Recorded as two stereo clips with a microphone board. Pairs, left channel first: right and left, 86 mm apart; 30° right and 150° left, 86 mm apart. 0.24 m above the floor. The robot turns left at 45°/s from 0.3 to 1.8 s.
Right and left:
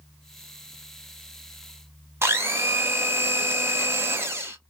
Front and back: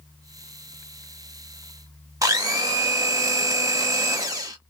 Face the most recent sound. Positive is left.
turn(degrees=135)